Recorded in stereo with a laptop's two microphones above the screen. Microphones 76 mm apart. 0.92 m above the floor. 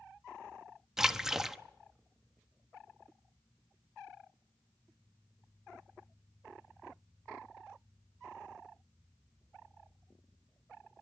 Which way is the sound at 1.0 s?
5° right (ahead or behind).